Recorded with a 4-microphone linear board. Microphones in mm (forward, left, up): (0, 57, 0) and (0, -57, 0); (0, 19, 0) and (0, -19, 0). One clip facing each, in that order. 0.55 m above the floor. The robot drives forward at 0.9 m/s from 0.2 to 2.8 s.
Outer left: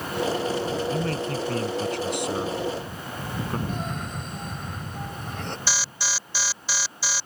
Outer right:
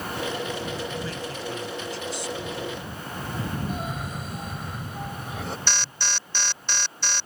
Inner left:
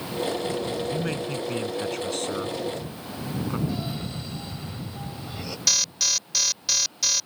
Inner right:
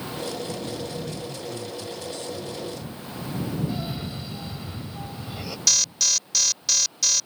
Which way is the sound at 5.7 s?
5° left (ahead or behind).